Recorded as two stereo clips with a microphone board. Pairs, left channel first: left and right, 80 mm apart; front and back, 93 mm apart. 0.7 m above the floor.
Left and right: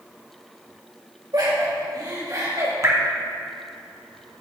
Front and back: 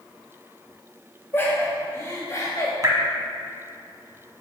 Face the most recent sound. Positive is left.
turn(degrees=-135)